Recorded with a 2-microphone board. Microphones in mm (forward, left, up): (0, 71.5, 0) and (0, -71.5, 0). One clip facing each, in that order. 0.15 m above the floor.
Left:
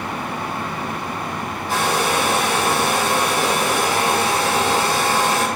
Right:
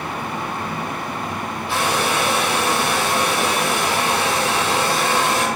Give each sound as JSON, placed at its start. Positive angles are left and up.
{"t": 1.7, "sound": "a hair dryer", "side_deg": 50, "distance_m": 6.5}